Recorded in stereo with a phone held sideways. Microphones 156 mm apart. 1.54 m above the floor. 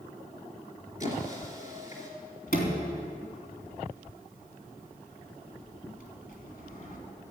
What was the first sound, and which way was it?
A squeak, 50° left (ahead or behind).